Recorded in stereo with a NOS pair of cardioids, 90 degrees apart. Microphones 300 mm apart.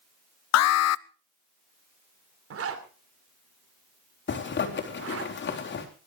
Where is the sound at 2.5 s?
50° right, 3 m.